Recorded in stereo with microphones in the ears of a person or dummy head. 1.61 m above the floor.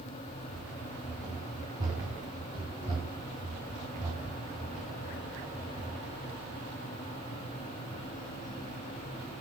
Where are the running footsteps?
10° right (ahead or behind), 7.5 m; by 6.7 s 45° right (ahead or behind), 8.5 m.